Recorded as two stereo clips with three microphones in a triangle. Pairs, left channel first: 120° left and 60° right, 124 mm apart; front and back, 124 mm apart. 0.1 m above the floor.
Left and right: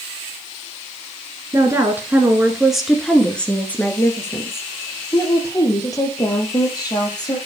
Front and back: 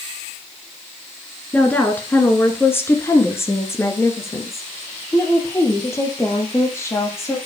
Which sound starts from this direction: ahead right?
A woman speaking, at 1.5 s.